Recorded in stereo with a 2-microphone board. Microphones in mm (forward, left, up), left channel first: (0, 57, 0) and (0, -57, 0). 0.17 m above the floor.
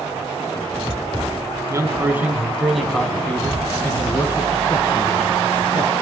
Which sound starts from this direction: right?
A man speaking, at 1.7 s.